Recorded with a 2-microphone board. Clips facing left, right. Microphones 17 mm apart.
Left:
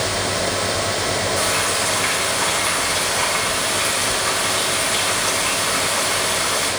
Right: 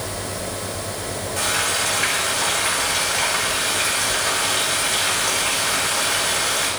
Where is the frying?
70° right (ahead or behind), 4.5 m.